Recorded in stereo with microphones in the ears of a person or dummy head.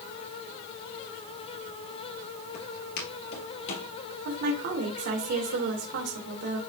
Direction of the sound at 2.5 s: 45° left (ahead or behind).